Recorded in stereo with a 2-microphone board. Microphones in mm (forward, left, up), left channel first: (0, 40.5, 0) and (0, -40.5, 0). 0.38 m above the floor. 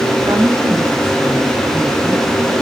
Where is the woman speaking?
20° right (ahead or behind), 9 m; by 2.5 s 30° right (ahead or behind), 9 m.